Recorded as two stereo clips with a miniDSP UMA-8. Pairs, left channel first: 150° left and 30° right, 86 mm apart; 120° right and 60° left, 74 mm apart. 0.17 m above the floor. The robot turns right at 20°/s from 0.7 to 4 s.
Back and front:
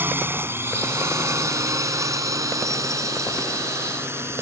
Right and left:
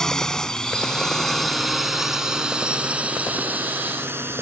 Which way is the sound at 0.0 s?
45° right.